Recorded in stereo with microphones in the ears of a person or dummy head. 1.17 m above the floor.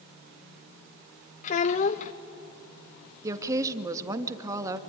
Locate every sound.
1.4 s a child speaking: 45° left (ahead or behind), 0.7 m
3.2 s a woman speaking: 15° right (ahead or behind), 1.7 m